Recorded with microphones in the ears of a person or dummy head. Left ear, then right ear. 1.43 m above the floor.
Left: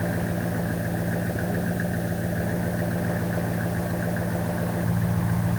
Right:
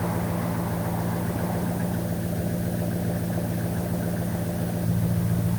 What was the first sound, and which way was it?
An engine running, 80° left.